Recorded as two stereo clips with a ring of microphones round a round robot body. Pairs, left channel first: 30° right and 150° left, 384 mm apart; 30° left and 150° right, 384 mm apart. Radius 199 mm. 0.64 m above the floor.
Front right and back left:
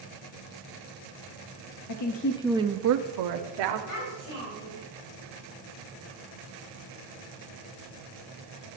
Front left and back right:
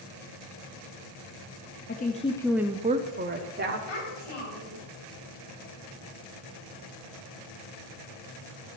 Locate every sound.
1.9 s a woman speaking: 30° right, 0.8 m; by 3.8 s 145° left, 1.4 m
3.9 s a child speaking: 10° left, 3.5 m